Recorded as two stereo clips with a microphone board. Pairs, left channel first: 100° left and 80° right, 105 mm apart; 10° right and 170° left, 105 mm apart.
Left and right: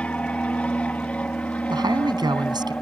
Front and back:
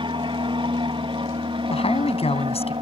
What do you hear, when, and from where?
0.0 s an aircraft: 175° left
1.7 s a man speaking: 30° right